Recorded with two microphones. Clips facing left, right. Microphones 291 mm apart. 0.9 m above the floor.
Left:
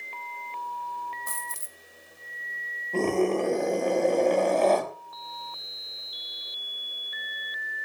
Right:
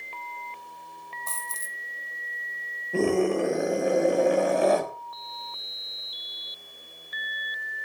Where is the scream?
10° right (ahead or behind), 5.5 m.